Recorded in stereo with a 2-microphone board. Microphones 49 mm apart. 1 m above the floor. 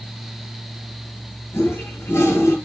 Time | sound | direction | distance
1.5 | a toilet flushing | 60° left (ahead or behind) | 5.5 m